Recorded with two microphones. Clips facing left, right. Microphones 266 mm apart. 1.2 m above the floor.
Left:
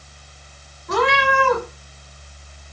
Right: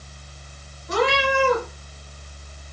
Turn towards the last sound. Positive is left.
turn(degrees=65)  # may be behind; listen again after turning